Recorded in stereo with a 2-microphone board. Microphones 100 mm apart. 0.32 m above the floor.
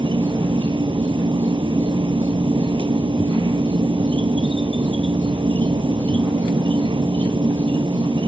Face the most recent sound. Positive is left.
turn(degrees=-60)  # may be behind; listen again after turning